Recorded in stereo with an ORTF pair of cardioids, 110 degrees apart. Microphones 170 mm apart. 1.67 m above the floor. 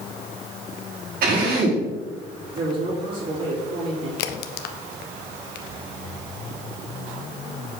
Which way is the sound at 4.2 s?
70° left.